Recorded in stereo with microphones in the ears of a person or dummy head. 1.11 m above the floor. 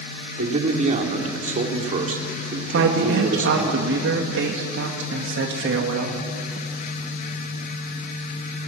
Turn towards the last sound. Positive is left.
turn(degrees=-60)  # may be behind; listen again after turning